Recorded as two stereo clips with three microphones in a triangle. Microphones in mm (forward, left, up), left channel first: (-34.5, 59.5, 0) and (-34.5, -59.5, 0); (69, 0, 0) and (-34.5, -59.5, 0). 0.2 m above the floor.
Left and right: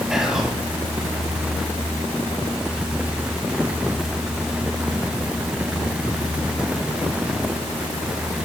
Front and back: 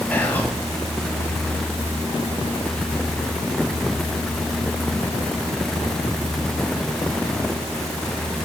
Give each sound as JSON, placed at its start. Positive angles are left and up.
{"t": 0.1, "sound": "whispering", "azimuth_deg": -15, "distance_m": 1.1}